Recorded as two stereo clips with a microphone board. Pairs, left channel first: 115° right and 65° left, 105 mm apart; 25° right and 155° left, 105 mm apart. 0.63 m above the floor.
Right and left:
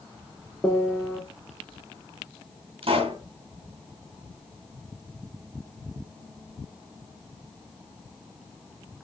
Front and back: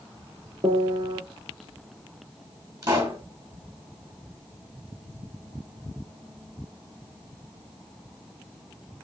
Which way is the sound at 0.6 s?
175° right.